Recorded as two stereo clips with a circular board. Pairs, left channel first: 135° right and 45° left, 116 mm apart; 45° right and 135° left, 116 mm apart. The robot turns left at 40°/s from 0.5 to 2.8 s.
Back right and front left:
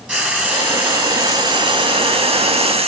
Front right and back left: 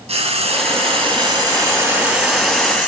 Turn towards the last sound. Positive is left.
turn(degrees=30)